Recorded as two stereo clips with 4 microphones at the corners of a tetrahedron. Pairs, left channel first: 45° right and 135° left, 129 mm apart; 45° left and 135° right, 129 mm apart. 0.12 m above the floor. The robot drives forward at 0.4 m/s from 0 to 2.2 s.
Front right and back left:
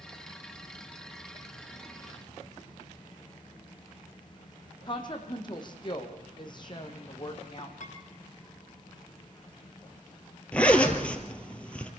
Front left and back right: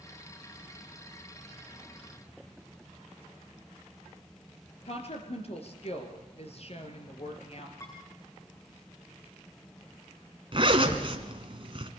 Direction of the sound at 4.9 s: 10° left.